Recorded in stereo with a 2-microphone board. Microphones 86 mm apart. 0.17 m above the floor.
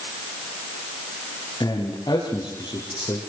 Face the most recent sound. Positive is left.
turn(degrees=50)  # may be behind; listen again after turning